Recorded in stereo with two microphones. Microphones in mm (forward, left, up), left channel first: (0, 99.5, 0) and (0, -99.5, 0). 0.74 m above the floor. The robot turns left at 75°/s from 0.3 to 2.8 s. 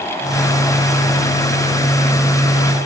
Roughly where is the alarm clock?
No alarm clock in this recording.